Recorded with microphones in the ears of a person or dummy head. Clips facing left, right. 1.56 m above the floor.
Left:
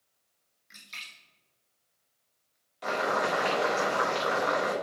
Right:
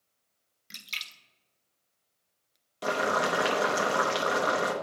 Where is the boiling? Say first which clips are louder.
Right 1 dB; 40° right (ahead or behind), 0.7 m.